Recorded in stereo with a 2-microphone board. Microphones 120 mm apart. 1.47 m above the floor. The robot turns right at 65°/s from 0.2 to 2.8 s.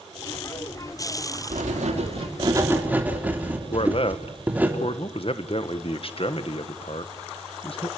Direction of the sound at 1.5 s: 100° right.